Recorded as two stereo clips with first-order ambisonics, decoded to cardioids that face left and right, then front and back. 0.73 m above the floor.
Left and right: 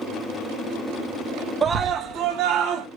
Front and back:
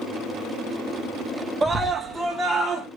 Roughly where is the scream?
Behind right.